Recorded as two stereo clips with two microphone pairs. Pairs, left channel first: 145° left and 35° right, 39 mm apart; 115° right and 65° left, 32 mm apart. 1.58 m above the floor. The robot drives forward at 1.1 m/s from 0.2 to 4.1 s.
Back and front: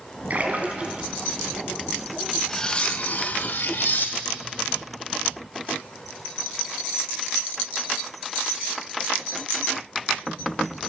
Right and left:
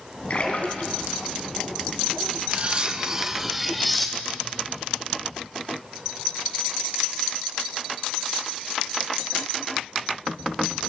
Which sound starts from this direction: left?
Cutlery clinking, at 2.5 s.